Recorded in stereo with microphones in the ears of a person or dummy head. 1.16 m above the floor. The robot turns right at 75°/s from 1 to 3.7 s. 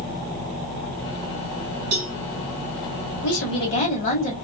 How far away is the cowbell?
About 1.3 m.